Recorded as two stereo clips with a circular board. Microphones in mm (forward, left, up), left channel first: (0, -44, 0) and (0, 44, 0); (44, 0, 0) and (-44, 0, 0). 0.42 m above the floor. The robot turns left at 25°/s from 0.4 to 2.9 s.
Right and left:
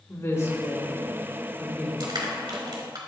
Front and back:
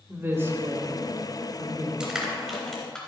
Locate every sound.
0.1 s a woman speaking: 130° right, 1.9 m; by 1.9 s 170° right, 1.9 m
2.0 s crushing: 100° left, 2.5 m; by 3.0 s 80° left, 2.5 m